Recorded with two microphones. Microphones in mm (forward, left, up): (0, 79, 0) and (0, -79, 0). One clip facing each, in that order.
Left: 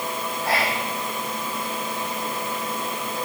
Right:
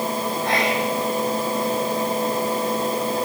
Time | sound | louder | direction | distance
0.4 | whispering | right 2 dB | 5° left (ahead or behind) | 6 m